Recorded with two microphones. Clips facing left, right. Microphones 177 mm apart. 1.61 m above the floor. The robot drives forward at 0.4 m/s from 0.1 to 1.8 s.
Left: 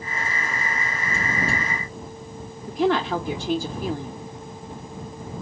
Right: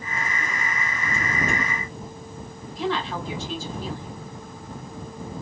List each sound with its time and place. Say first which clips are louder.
2.7 s a woman speaking: left 6 dB; 60° left (ahead or behind), 0.7 m